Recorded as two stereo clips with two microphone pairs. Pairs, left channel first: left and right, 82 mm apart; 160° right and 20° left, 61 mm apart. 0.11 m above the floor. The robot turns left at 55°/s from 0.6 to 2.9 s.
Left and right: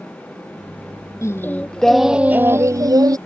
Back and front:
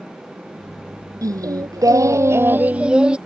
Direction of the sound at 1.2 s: 40° left.